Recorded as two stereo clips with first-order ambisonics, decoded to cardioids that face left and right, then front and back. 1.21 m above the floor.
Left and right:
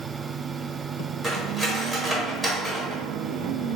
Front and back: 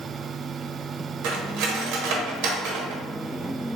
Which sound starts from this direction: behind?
Cutlery clinking, at 1.2 s.